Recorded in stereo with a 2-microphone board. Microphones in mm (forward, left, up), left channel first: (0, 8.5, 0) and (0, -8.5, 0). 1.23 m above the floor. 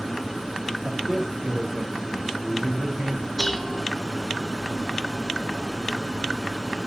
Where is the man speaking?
45° right (ahead or behind), 3.5 m.